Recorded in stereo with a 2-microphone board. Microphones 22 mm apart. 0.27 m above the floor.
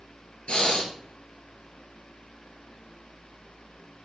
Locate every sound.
0.5 s breathing: 55° left (ahead or behind), 0.9 m